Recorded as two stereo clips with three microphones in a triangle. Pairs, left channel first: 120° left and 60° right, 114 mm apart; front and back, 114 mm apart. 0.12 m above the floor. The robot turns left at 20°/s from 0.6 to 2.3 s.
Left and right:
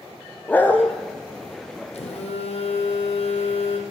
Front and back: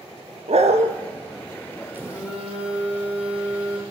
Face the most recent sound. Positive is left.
turn(degrees=100)